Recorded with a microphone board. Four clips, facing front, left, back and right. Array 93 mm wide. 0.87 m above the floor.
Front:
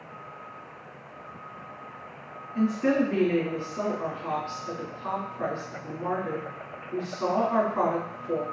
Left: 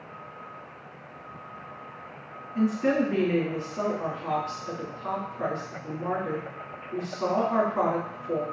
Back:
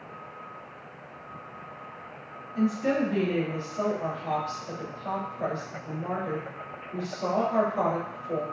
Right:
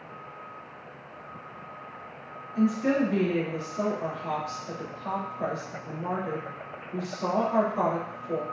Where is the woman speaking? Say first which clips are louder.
Even, front 2 dB; 40° left, 2.5 m.